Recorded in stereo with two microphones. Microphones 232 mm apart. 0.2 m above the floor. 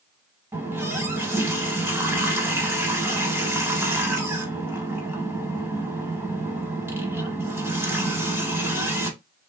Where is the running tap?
10° right (ahead or behind), 0.7 m.